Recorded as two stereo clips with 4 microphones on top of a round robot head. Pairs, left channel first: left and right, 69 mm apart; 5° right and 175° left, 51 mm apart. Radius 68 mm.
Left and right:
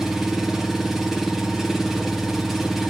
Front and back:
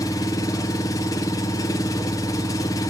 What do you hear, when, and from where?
0.0 s an engine running: straight ahead, 0.7 m